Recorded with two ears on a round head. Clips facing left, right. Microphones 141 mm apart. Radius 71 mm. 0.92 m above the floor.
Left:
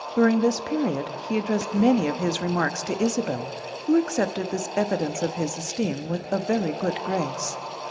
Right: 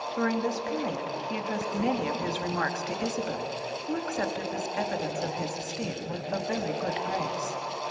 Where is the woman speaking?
55° left (ahead or behind), 1.0 m.